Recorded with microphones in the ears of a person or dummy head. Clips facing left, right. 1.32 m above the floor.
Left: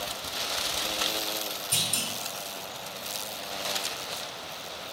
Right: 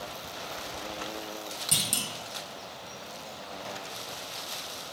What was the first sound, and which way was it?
A clunk, 65° right (ahead or behind).